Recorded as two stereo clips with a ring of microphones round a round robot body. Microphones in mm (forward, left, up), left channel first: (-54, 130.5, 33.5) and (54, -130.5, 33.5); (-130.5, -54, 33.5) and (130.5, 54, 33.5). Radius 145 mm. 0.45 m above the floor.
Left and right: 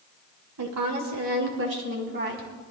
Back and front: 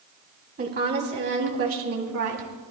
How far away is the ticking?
No ticking in this recording.